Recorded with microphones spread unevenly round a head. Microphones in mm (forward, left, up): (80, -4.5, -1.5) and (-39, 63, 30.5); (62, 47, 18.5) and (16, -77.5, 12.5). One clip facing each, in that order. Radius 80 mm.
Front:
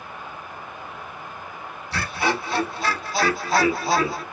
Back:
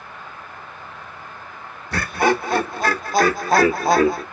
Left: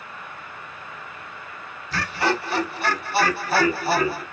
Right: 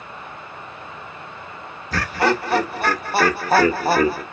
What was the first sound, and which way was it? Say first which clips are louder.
Laughter: back 6 dB, right 4 dB; 170° right.